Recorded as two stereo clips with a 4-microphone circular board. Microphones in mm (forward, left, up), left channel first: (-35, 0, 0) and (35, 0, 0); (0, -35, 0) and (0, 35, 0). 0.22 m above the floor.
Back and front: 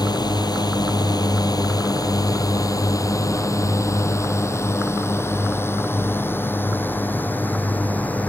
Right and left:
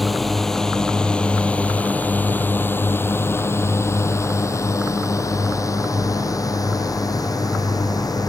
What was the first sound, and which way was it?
A drone, straight behind.